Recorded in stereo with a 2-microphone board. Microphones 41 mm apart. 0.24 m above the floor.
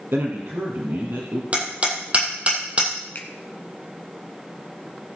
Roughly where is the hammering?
Right.